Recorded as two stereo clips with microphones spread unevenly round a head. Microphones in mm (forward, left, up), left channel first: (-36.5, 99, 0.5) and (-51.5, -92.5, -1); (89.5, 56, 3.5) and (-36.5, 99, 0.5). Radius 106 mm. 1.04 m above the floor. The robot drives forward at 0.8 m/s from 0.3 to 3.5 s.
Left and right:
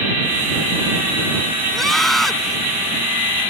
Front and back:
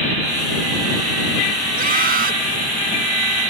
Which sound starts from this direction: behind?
A scream, at 1.7 s.